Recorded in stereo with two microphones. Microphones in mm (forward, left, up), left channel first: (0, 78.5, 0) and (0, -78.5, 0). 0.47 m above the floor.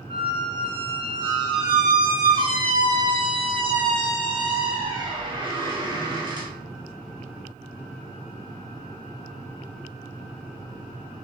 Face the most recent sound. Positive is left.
turn(degrees=-30)  # may be behind; listen again after turning